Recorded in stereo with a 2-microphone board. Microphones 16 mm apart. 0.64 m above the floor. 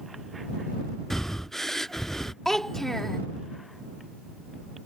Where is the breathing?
20° left (ahead or behind).